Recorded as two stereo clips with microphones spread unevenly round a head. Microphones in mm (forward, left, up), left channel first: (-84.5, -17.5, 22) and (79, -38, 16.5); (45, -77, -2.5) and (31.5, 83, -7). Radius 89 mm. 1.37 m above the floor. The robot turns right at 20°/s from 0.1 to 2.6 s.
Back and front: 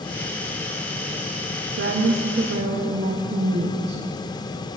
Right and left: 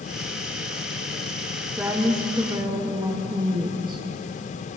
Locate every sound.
1.8 s a woman speaking: 10° left, 0.8 m; by 4.0 s 30° left, 0.8 m